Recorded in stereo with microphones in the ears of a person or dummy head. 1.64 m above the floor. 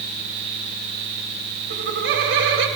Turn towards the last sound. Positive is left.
turn(degrees=-60)  # may be behind; listen again after turning